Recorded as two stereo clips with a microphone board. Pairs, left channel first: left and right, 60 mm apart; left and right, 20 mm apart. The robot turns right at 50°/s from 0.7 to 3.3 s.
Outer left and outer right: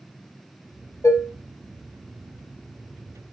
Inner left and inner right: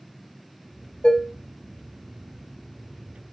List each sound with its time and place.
1.0 s dishes clattering: 55° left (ahead or behind), 0.8 m